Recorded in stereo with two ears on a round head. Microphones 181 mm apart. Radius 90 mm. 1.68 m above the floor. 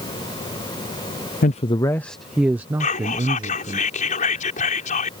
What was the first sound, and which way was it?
A man speaking, 40° left (ahead or behind).